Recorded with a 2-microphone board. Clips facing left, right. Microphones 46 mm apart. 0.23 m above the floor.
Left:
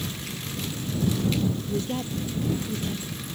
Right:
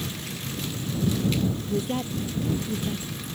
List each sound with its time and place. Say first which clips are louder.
1.7 s a woman speaking: right 1 dB; 15° right (ahead or behind)